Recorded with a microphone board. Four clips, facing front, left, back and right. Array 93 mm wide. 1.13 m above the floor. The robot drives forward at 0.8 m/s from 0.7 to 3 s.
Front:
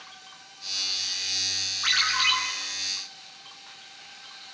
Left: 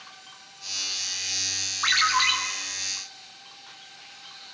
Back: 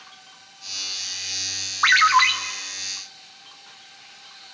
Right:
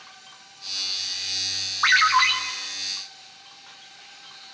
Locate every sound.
1.8 s a ringtone: 155° right, 1.9 m; by 2.3 s 160° right, 2 m